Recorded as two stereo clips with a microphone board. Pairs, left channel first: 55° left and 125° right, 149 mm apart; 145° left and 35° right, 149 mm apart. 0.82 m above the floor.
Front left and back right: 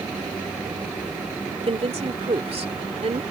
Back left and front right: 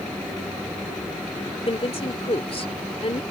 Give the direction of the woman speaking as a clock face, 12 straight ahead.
6 o'clock.